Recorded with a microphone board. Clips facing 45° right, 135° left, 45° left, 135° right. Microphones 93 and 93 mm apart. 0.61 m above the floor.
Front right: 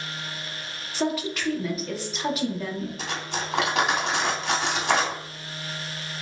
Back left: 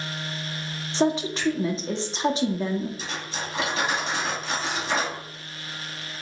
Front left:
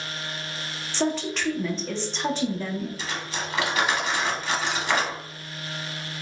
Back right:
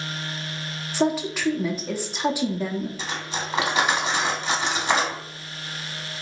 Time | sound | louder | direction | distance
0.9 | a woman speaking | back left 4 dB, back right 3 dB | 155° left | 0.7 m
3.0 | cutlery clinking | front right 2 dB, back right 1 dB | 65° right | 1.1 m